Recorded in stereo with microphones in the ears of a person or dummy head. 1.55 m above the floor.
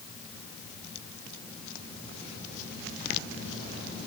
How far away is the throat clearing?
I don't hear throat clearing.